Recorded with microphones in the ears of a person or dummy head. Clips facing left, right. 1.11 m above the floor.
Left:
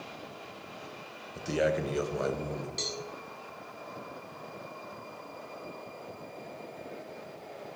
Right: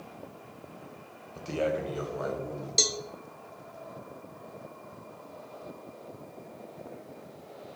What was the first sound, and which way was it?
A man speaking, 10° left (ahead or behind).